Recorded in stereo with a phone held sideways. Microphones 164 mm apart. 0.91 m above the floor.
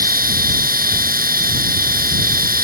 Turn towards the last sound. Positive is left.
turn(degrees=-60)  # may be behind; listen again after turning